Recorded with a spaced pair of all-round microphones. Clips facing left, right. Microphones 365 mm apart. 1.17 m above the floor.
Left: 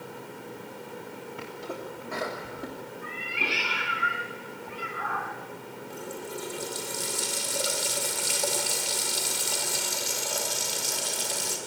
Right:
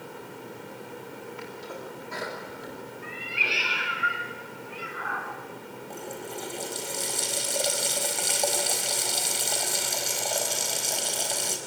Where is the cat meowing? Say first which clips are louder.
Left 1 dB; 65° left (ahead or behind), 3 m.